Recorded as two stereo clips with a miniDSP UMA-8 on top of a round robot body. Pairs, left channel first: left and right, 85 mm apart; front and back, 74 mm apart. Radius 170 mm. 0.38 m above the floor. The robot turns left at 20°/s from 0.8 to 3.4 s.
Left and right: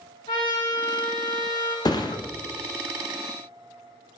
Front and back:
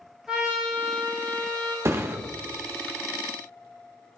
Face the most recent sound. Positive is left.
turn(degrees=95)